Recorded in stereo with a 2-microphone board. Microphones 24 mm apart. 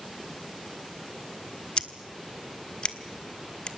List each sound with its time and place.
1.8 s scissors: 45° left (ahead or behind), 1.4 m